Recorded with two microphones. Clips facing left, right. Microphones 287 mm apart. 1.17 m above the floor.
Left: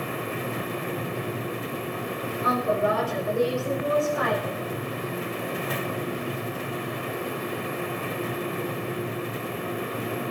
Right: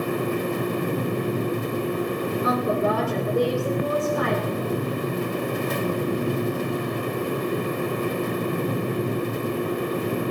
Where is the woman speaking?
45° right (ahead or behind), 4.5 m; by 4.6 s 40° right (ahead or behind), 6.5 m.